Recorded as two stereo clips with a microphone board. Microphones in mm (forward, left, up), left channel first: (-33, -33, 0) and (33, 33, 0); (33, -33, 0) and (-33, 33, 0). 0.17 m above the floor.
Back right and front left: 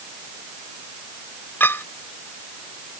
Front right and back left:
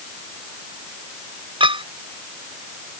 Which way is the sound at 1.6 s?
155° left.